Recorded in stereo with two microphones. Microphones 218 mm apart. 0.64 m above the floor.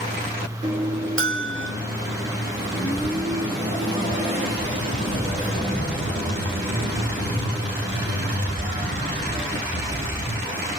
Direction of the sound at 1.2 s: 65° right (ahead or behind).